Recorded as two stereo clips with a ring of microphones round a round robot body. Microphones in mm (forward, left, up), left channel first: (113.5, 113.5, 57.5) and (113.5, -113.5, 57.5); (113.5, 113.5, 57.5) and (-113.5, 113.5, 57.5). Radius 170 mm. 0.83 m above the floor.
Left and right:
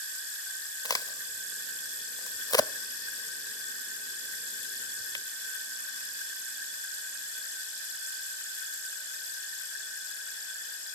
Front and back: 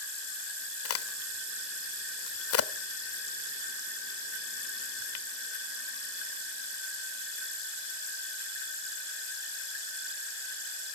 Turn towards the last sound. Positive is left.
turn(degrees=15)